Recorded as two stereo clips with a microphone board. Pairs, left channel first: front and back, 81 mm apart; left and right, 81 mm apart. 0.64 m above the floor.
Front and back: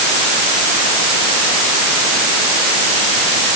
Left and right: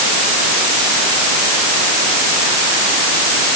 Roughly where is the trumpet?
I don't hear a trumpet.